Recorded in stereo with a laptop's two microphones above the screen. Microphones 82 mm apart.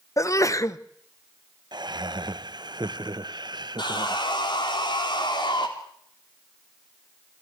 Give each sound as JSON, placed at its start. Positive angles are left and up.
{"t": 0.2, "sound": "a sneeze", "side_deg": 40, "distance_m": 0.7}
{"t": 1.7, "sound": "laughter", "side_deg": -60, "distance_m": 0.8}
{"t": 3.8, "sound": "sawing", "side_deg": 65, "distance_m": 3.0}